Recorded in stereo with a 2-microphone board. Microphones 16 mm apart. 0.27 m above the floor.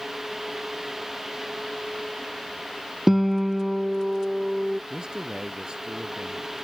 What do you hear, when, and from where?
3.1 s a guitar: 15° right (ahead or behind)
4.9 s a man speaking: 50° right (ahead or behind)